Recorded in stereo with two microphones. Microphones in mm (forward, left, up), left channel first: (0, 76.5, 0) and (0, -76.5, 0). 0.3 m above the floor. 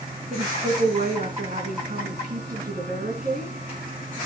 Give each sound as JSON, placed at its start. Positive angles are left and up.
{"t": 0.3, "sound": "a woman speaking", "side_deg": -70, "distance_m": 3.0}